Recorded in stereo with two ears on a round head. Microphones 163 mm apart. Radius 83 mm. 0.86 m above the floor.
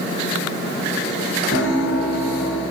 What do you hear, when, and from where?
1.5 s a piano: 80° left, 3.5 m